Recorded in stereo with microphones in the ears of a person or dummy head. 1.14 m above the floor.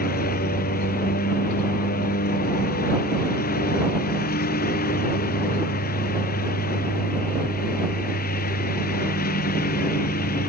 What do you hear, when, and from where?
0.0 s a lawn mower: 45° left (ahead or behind)